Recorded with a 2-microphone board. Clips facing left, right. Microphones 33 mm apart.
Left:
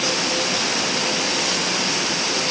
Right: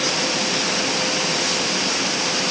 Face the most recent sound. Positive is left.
No sound to turn to.